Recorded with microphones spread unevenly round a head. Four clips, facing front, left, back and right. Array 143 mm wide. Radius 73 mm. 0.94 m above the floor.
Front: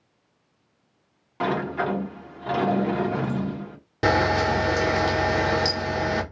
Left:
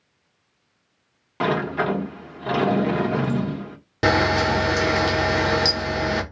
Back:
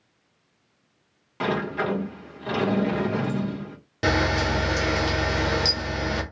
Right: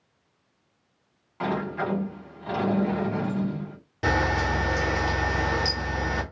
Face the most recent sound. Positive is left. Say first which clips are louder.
# left 6 dB, front 3 dB
turn(degrees=60)